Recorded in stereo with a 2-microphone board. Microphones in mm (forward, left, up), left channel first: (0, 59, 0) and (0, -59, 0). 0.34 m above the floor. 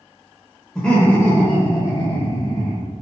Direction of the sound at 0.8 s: 5° left (ahead or behind).